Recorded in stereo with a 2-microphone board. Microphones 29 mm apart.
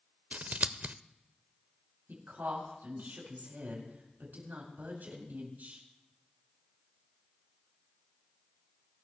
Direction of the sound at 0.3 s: 60° right (ahead or behind).